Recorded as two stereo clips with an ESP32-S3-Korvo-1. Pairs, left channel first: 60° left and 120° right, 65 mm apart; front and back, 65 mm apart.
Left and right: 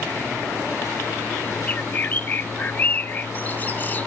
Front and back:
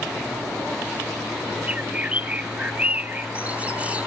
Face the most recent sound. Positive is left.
turn(degrees=115)